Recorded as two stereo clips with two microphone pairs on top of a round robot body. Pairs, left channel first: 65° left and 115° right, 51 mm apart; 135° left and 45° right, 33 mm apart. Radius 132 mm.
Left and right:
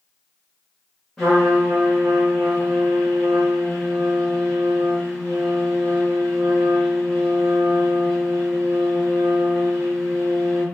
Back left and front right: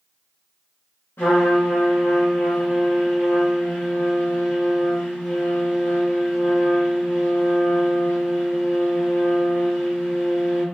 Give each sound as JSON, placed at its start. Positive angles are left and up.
{"t": 1.2, "sound": "a trumpet", "azimuth_deg": 145, "distance_m": 0.7}